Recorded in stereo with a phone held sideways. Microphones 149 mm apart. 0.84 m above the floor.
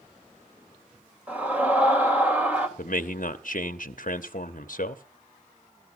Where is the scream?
10° right (ahead or behind), 3.5 m.